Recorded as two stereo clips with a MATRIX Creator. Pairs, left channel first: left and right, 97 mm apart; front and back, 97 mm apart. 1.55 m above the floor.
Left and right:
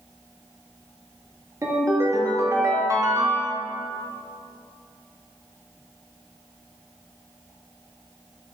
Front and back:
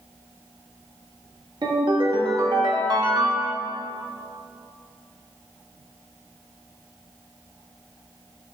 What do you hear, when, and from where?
1.6 s a ringtone: 145° right, 1.7 m